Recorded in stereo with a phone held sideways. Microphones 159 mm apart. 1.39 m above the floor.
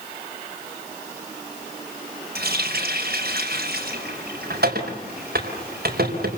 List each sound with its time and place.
2.4 s a running tap: 85° right, 4.5 m